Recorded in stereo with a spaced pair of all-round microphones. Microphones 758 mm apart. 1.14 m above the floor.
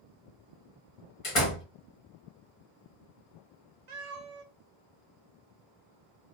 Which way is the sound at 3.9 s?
50° right (ahead or behind).